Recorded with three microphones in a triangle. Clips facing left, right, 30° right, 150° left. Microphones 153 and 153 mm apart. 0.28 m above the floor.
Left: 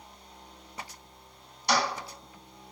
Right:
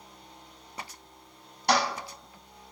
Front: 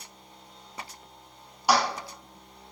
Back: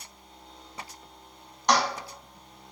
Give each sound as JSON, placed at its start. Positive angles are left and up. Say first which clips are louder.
{"t": 1.7, "sound": "a toilet flushing", "louder": "right 2 dB, front 1 dB", "azimuth_deg": -110, "distance_m": 1.0}